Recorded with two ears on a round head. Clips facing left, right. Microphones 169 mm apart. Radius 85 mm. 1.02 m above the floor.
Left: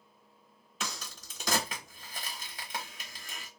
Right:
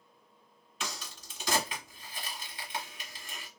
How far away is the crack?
About 1.3 m.